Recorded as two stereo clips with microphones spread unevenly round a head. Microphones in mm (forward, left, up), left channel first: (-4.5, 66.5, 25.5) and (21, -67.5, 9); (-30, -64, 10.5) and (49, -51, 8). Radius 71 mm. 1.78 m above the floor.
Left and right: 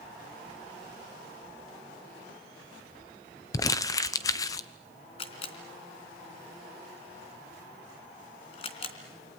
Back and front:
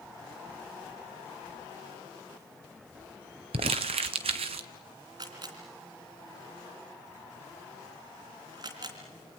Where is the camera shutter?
65° left, 3 m.